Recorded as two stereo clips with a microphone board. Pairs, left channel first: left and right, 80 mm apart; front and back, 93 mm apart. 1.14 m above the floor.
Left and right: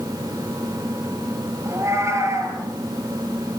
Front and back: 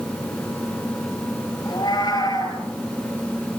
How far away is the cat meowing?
About 10 m.